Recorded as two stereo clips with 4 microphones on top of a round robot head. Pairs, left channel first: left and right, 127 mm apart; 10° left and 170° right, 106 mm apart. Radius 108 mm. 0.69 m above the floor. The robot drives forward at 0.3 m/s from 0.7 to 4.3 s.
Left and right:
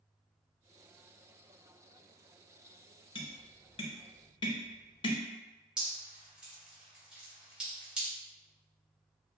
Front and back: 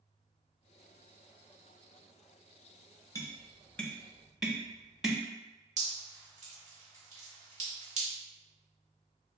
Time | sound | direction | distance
3.1 | tapping | 60° left | 0.7 m
5.8 | dripping | 175° right | 1.1 m